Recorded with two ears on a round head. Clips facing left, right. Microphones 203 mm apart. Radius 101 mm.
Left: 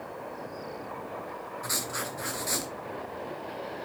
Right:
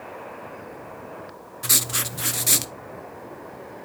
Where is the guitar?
I don't hear a guitar.